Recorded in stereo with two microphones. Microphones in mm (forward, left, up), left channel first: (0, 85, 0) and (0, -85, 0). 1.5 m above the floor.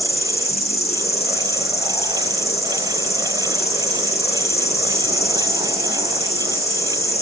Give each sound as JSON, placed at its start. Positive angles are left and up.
{"t": 0.0, "sound": "an insect", "side_deg": 40, "distance_m": 8.5}